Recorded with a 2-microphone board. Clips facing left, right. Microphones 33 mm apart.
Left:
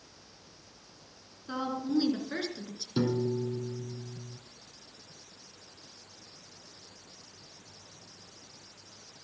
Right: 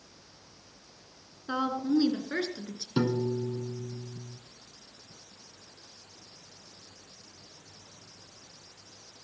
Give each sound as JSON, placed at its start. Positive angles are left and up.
{"t": 1.5, "sound": "a woman speaking", "side_deg": -30, "distance_m": 2.5}
{"t": 3.0, "sound": "a piano", "side_deg": -30, "distance_m": 1.4}